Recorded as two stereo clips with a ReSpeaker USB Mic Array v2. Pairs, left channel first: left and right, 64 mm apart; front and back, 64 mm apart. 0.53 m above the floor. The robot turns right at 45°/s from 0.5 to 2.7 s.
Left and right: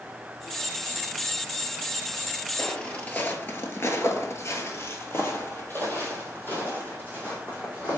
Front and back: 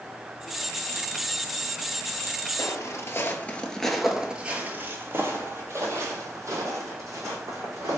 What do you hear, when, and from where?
2.6 s footsteps: 10° left, 0.8 m; by 8.0 s 155° left, 2 m